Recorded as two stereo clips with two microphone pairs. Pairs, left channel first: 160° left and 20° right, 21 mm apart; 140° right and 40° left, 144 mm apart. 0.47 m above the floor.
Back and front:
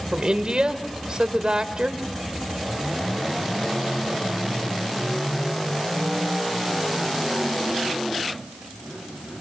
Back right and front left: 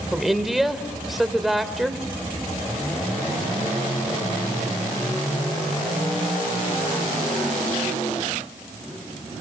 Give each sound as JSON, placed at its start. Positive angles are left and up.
{"t": 0.1, "sound": "a woman speaking", "azimuth_deg": -45, "distance_m": 1.9}